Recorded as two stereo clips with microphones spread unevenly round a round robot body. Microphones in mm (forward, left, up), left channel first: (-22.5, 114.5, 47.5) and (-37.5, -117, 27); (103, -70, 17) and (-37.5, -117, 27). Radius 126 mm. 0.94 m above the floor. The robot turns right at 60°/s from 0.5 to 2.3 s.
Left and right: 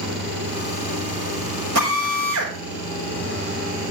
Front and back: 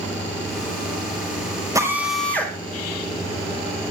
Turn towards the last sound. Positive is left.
turn(degrees=-60)